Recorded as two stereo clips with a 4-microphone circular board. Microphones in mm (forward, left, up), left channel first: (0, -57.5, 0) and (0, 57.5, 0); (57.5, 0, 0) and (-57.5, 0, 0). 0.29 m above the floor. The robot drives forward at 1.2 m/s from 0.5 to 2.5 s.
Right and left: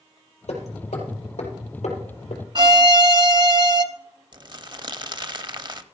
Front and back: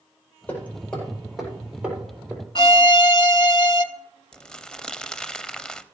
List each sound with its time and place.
0.5 s hammering: 75° right, 4 m; by 2.4 s 105° right, 4 m
2.5 s a violin: 45° left, 0.5 m
4.3 s crumpling: 80° left, 0.6 m